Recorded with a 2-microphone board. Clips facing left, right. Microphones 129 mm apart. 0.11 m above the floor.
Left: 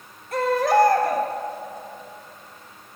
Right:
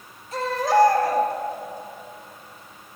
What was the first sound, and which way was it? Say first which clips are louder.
A baby crying: left 2 dB; 60° left (ahead or behind).